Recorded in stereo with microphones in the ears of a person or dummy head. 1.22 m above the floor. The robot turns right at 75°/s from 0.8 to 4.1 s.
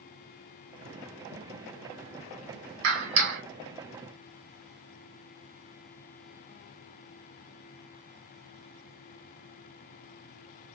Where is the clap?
120° right, 1.4 m; by 3.4 s 75° right, 1.4 m.